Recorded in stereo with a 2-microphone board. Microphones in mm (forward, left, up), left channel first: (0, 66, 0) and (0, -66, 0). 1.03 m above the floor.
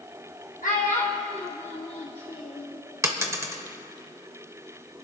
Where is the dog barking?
No dog barking in this recording.